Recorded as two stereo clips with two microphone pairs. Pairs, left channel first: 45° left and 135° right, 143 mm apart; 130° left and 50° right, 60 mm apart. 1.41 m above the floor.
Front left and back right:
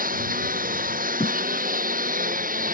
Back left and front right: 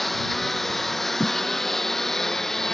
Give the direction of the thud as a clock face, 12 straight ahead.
9 o'clock.